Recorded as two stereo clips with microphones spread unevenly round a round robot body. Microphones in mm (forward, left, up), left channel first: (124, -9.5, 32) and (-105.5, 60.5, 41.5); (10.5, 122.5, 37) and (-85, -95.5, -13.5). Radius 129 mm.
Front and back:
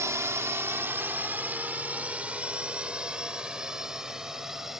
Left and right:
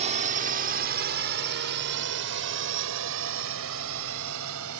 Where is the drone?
125° right; by 4.8 s 110° right.